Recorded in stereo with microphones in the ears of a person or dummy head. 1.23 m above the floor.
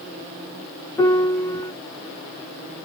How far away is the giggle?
No giggle in this recording.